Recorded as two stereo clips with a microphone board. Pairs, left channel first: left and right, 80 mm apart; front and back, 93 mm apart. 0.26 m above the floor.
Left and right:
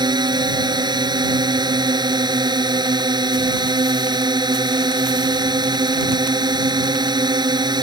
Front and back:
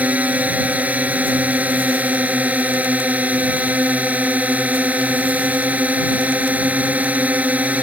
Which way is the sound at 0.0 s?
105° right.